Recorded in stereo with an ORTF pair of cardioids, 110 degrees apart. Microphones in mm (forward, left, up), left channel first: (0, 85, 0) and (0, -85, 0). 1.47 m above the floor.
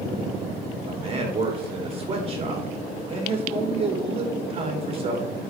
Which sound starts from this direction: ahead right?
A man speaking, at 0.9 s.